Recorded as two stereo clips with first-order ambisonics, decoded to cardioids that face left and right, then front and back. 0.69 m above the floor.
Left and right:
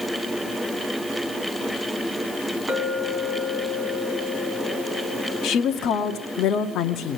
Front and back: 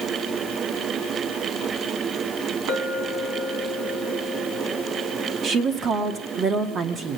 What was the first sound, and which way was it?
A clink, 165° right.